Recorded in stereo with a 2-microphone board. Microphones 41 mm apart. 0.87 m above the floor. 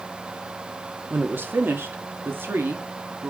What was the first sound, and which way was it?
A woman speaking, 55° right (ahead or behind).